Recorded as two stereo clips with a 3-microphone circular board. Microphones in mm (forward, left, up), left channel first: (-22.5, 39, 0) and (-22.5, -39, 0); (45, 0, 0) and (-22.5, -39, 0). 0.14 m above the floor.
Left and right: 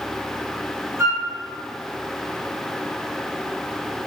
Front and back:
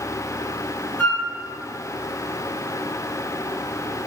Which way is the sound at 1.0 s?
35° right.